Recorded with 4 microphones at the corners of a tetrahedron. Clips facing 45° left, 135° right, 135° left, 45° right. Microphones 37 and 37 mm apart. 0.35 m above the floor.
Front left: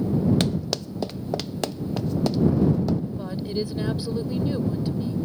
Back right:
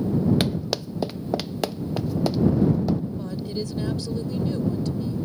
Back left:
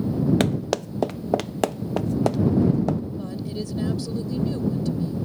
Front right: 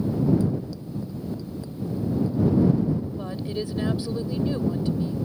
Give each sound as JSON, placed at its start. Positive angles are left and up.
{"t": 0.4, "sound": "running footsteps", "azimuth_deg": 145}
{"t": 3.2, "sound": "a woman speaking", "azimuth_deg": -5}